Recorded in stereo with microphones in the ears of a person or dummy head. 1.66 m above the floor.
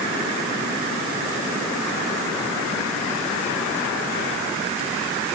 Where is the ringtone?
I don't hear a ringtone.